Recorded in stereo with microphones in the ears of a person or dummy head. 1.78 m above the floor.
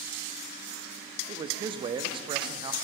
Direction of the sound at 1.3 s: 35° right (ahead or behind).